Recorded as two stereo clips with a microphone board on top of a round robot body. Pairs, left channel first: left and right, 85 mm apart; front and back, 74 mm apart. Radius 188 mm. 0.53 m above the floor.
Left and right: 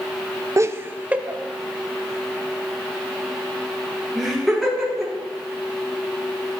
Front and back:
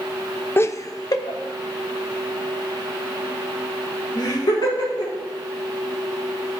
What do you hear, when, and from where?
0.6 s laughter: 50° right, 0.9 m; by 5.1 s straight ahead, 6.5 m